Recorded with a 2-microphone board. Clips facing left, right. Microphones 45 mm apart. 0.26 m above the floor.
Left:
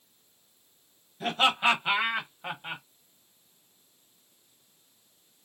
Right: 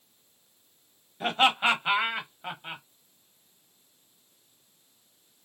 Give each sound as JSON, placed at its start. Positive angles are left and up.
{"t": 1.2, "sound": "laughter", "side_deg": -30, "distance_m": 1.3}